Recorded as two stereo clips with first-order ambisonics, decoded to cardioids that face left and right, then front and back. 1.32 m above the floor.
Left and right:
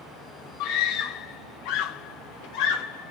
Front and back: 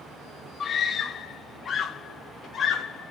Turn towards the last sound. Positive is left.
turn(degrees=70)